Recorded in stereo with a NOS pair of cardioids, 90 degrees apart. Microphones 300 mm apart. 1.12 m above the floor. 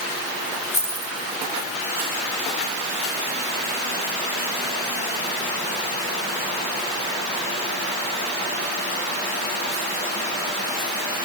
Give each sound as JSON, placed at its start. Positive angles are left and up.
{"t": 0.7, "sound": "keys jangling", "azimuth_deg": 20, "distance_m": 4.0}